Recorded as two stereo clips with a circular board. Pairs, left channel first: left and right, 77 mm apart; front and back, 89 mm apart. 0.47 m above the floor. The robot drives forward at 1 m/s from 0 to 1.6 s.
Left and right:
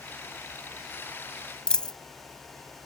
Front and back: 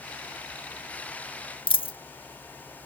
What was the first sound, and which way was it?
A dropped coin, 10° left.